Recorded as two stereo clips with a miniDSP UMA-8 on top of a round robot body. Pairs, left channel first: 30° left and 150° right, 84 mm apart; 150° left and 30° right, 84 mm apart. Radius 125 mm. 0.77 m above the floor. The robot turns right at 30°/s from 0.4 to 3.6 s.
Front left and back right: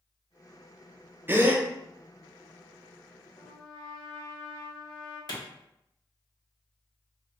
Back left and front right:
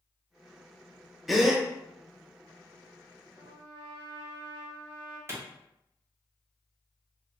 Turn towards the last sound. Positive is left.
turn(degrees=20)